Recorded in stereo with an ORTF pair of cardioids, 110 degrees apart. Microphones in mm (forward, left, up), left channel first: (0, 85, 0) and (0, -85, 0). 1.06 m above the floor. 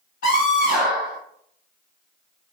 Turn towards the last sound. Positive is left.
turn(degrees=70)